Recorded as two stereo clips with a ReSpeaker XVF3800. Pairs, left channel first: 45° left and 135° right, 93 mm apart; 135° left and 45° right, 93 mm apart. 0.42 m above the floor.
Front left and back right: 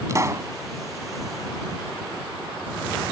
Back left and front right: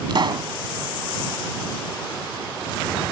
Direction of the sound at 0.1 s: 80° right.